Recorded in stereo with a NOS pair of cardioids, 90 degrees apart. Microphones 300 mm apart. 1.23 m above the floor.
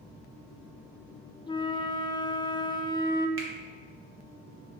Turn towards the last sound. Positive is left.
turn(degrees=-45)